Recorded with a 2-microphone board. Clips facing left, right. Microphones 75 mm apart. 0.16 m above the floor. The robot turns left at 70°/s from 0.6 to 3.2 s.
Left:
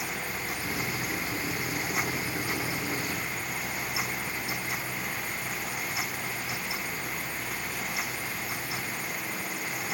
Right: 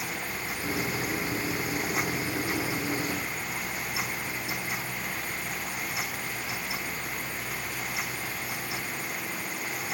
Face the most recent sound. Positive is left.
No sound to turn to.